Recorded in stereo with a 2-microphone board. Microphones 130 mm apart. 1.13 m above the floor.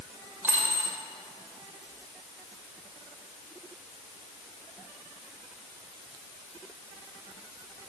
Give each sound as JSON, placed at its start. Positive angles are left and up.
{"t": 0.4, "sound": "a dropped coin", "side_deg": -15, "distance_m": 2.0}